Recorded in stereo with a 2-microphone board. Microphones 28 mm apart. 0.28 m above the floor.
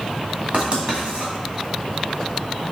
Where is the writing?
50° right (ahead or behind), 2 m.